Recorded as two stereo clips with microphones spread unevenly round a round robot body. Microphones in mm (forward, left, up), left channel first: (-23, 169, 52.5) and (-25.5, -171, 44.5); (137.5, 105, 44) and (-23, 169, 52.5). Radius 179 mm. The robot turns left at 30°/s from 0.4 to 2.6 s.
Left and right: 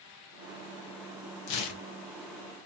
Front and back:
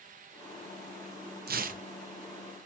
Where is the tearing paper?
120° left, 0.5 m; by 1.8 s 105° left, 0.5 m.